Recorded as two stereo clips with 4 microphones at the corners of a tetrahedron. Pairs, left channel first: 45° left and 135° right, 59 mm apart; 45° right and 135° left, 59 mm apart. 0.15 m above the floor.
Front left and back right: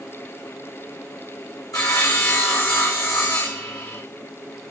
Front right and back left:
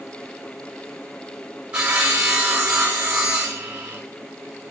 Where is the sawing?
60° left, 3 m.